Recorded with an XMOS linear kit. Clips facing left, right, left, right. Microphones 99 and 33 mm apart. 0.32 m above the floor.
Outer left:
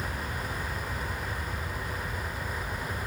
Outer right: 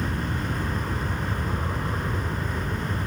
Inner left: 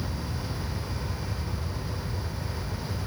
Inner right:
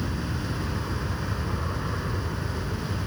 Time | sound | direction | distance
0.0 | an aircraft | 55° right (ahead or behind) | ?